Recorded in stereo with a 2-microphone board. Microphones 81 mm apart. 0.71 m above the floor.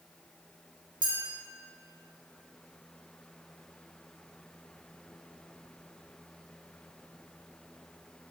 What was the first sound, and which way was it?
A clink, 70° right (ahead or behind).